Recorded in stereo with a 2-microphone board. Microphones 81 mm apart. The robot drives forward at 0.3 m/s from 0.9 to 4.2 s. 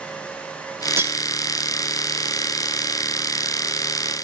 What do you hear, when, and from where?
1.0 s cutlery clinking: 30° right (ahead or behind), 1.0 m